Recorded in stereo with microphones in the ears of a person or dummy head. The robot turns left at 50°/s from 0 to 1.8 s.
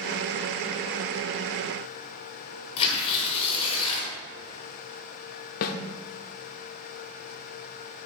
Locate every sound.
2.8 s tearing paper: 30° left (ahead or behind), 1.9 m
5.6 s a snare drum: 50° left (ahead or behind), 0.6 m